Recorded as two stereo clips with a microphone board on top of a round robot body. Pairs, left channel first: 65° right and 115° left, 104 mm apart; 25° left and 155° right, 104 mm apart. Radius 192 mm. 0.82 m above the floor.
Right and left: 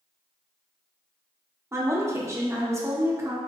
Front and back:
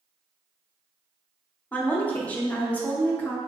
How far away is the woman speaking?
About 1.0 m.